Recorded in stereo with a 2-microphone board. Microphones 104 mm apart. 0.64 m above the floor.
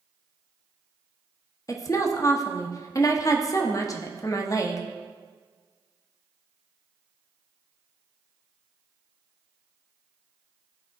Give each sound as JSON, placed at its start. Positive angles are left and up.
{"t": 1.7, "sound": "a woman speaking", "side_deg": 35, "distance_m": 0.8}